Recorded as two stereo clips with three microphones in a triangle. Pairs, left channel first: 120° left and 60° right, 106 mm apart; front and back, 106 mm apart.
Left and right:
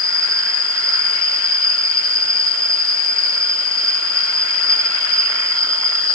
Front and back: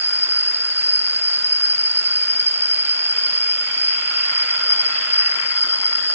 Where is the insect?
115° right.